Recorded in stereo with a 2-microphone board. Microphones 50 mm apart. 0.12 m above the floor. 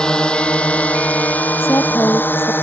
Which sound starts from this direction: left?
A woman speaking, at 1.6 s.